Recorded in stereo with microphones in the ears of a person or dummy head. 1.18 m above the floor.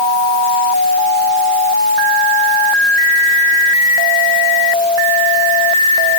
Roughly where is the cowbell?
No cowbell in this recording.